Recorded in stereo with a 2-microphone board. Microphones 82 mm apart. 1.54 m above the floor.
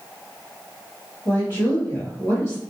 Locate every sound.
1.2 s a woman speaking: 35° left (ahead or behind), 1.6 m